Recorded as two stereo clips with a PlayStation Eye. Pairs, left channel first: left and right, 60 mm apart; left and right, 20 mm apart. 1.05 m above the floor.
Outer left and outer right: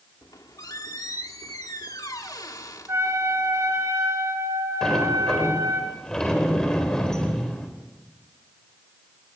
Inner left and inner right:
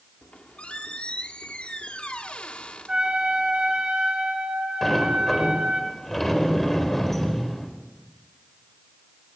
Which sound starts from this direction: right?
A trumpet, at 2.9 s.